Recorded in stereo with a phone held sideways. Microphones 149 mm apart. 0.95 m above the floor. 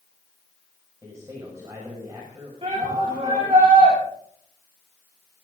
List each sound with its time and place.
1.0 s a man speaking: 25° right (ahead or behind), 6.5 m
2.6 s a shout: 40° right (ahead or behind), 7 m